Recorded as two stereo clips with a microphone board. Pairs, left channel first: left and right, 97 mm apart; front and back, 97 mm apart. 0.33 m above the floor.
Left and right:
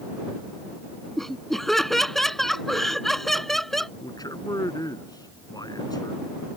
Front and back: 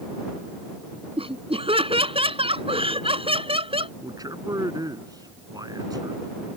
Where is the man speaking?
135° left.